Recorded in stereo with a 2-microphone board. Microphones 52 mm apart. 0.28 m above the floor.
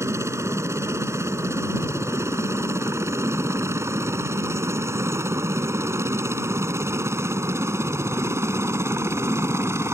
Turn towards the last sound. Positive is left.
turn(degrees=-60)  # may be behind; listen again after turning